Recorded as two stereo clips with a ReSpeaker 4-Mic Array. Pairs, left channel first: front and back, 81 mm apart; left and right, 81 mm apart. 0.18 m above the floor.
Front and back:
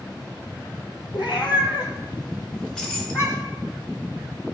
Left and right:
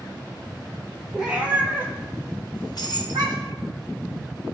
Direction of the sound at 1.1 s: 10° right.